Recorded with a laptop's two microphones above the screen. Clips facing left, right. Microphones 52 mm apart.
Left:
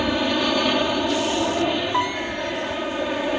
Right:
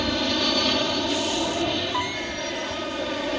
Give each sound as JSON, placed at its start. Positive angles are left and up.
{"t": 0.0, "sound": "an aircraft", "side_deg": 15}
{"t": 1.9, "sound": "a piano", "side_deg": 20}